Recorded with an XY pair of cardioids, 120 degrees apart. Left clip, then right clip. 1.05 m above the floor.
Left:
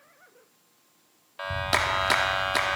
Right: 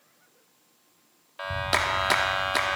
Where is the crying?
No crying in this recording.